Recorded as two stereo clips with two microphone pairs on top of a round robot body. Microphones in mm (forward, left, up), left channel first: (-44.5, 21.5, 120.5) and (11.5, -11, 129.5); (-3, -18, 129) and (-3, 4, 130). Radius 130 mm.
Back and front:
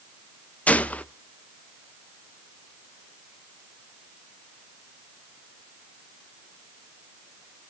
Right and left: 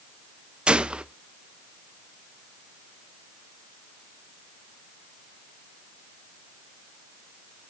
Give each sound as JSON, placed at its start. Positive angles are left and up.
{"t": 0.7, "sound": "a gunshot", "azimuth_deg": 100, "distance_m": 0.8}